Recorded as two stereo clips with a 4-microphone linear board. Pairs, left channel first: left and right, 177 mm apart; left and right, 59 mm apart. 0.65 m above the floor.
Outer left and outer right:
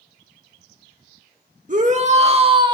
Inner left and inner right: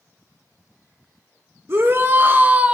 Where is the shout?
45° right (ahead or behind), 1.8 m; by 2.8 s 25° right (ahead or behind), 1.3 m.